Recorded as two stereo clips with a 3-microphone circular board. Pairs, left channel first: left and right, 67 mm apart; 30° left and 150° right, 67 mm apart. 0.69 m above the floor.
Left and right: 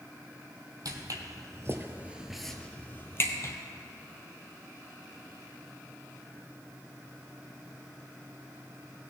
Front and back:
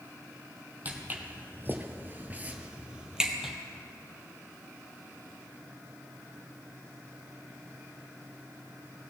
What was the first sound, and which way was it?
Footsteps, 90° right.